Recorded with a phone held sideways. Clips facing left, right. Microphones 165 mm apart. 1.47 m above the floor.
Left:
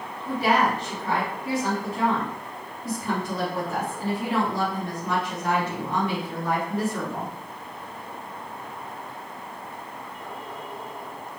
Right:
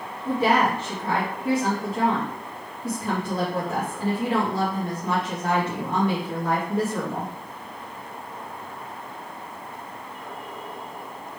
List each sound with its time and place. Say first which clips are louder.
0.2 s a woman speaking: right 1 dB; 60° right (ahead or behind), 1.8 m